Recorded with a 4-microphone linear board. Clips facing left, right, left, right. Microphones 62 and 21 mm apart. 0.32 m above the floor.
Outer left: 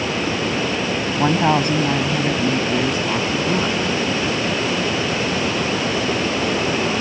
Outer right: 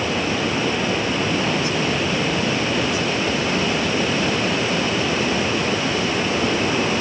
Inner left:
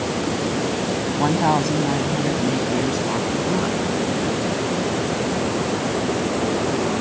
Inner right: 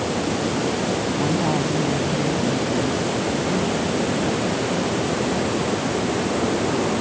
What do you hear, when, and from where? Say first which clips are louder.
1.2 s a woman speaking: outer left 4 dB, inner left 6 dB; 55° left (ahead or behind); by 3.8 s 45° left (ahead or behind)